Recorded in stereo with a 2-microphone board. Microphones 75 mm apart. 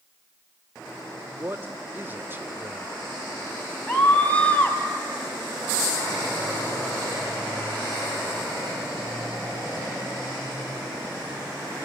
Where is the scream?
20° left (ahead or behind), 3.5 m.